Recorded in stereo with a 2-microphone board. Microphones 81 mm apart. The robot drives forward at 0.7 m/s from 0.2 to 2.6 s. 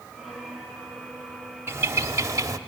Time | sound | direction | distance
1.7 | a bird | 30° right (ahead or behind) | 1.3 m